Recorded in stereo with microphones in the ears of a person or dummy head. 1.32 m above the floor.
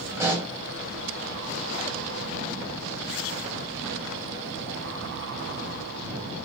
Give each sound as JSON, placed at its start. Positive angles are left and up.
{"t": 0.2, "sound": "a pop", "side_deg": -15, "distance_m": 1.0}